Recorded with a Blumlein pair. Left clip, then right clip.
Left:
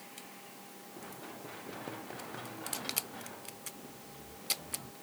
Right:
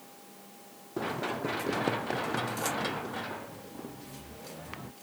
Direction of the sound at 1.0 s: 55° right.